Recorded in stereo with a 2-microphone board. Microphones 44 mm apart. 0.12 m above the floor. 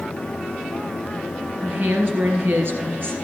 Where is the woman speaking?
55° right (ahead or behind), 2.5 m.